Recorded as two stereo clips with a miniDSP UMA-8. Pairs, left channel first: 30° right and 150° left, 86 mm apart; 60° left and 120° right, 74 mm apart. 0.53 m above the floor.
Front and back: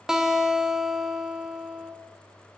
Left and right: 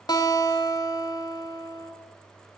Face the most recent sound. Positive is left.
turn(degrees=70)